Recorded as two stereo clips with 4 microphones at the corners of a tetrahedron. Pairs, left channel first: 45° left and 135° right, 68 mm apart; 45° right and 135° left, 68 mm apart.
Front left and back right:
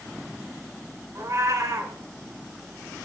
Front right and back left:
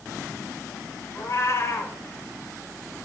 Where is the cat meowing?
90° right, 1.1 m.